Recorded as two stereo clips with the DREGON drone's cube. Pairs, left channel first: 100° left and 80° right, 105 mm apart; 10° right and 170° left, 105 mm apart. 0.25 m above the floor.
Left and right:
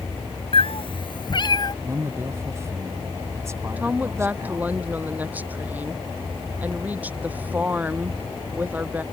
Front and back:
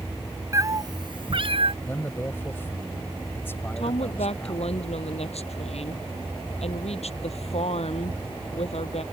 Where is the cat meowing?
115° left; by 1.7 s 145° left.